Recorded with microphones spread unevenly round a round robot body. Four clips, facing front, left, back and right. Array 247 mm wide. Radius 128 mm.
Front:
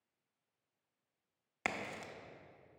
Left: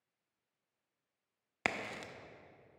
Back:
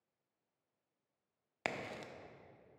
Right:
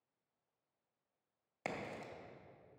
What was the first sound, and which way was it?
A crack, 80° left.